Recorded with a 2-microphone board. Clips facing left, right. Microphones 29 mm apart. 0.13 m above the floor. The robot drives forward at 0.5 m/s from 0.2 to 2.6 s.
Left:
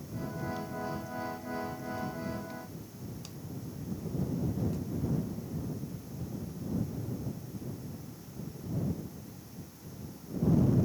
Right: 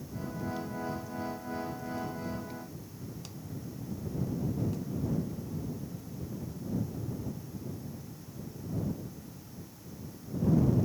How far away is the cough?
I don't hear a cough.